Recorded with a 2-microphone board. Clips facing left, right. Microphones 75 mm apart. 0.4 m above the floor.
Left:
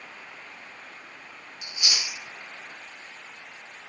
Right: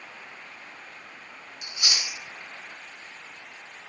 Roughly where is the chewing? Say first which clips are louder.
Right 1 dB; right.